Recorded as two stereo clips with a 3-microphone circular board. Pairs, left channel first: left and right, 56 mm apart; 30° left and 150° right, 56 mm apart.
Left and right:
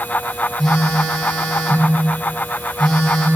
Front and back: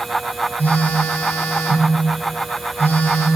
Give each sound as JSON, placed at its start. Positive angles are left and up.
{"t": 0.6, "sound": "a phone buzzing", "azimuth_deg": 15, "distance_m": 1.8}